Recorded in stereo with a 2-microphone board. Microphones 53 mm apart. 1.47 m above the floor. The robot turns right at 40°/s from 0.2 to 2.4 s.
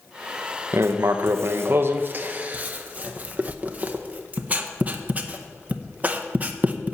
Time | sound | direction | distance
0.7 | writing | 55° right (ahead or behind) | 0.8 m